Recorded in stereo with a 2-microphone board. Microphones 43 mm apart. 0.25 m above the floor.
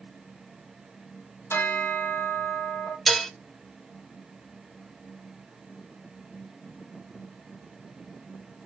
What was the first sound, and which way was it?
A bell, 80° left.